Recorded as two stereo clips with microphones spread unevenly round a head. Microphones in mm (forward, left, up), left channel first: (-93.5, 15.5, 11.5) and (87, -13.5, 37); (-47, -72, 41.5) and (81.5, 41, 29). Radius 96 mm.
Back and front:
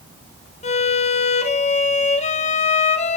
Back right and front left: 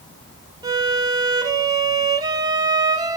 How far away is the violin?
About 2.0 m.